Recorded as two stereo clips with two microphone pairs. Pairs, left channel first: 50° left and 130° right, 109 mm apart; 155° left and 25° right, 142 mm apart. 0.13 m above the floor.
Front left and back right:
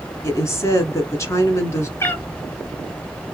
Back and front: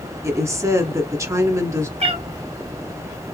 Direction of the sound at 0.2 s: 20° left.